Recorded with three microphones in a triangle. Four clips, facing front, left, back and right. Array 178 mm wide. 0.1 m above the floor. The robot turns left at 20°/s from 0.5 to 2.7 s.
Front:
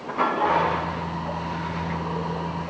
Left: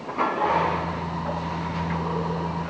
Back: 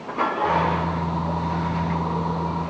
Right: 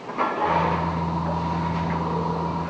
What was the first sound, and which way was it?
Only background noise.